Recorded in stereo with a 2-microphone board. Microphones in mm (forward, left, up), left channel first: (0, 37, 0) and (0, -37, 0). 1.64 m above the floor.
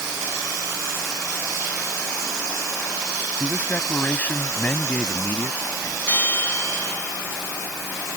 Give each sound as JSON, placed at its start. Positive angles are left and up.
{"t": 3.4, "sound": "a man speaking", "side_deg": 20}
{"t": 6.1, "sound": "a bell", "side_deg": 30}